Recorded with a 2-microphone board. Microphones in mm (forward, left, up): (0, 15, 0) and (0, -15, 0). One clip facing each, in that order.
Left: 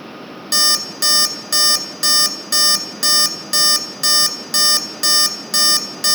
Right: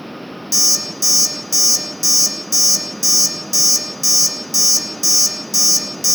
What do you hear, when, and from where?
0.5 s an alarm clock: 65° left (ahead or behind), 1.6 m